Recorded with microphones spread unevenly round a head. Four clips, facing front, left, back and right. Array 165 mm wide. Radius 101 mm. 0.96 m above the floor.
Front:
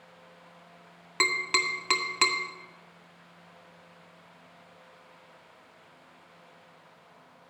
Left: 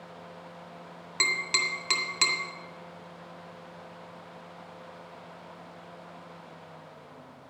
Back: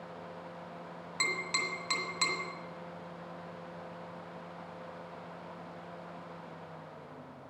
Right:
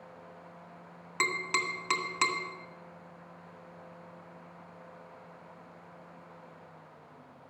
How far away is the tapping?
About 1.8 m.